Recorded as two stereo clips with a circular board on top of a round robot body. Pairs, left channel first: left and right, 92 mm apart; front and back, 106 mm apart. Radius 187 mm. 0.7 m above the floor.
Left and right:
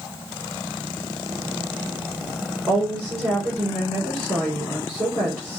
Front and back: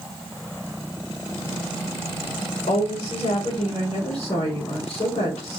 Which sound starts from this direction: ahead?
A woman speaking, at 2.7 s.